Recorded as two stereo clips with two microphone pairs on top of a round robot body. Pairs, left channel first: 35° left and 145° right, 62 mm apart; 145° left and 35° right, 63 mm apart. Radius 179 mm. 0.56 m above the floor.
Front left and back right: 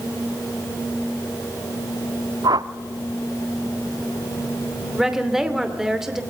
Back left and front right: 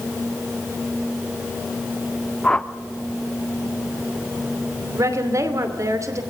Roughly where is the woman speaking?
Ahead right.